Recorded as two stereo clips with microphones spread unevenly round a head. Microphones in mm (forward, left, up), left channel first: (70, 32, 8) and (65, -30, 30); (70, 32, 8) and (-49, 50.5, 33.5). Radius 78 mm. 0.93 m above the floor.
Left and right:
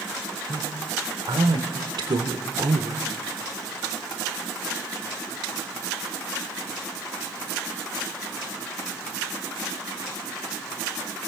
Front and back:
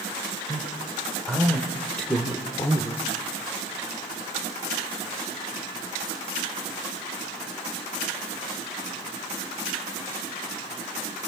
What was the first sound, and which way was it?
A man speaking, 100° right.